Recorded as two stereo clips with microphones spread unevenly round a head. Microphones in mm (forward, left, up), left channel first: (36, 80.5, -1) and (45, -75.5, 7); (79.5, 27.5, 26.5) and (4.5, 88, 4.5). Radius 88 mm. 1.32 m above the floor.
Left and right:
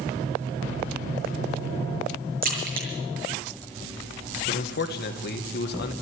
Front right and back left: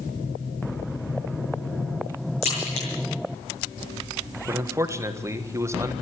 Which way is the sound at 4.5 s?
85° left.